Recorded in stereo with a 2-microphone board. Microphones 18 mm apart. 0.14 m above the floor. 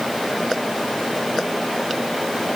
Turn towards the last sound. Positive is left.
No sound to turn to.